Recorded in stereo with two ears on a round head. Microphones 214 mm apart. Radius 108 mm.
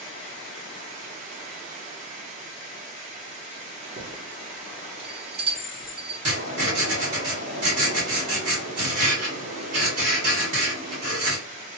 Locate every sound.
0.0 s running water: 35° right (ahead or behind), 1.0 m
4.0 s a chime: 25° right (ahead or behind), 1.2 m
6.2 s writing: 60° right (ahead or behind), 1.8 m